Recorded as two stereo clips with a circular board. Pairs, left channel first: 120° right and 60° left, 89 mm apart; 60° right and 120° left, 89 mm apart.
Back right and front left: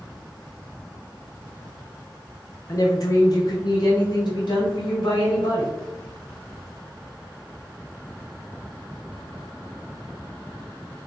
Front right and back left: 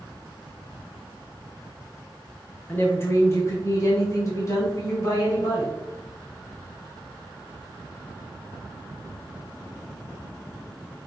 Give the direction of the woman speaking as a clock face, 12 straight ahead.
4 o'clock.